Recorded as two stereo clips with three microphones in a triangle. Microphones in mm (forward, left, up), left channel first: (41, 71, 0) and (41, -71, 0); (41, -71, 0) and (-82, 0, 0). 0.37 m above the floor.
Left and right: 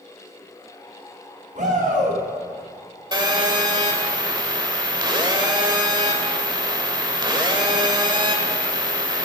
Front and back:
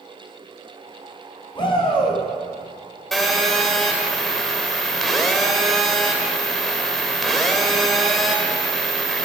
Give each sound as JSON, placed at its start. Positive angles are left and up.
{"t": 1.6, "sound": "a shout", "azimuth_deg": -80, "distance_m": 3.5}
{"t": 3.1, "sound": "a phone buzzing", "azimuth_deg": -115, "distance_m": 1.5}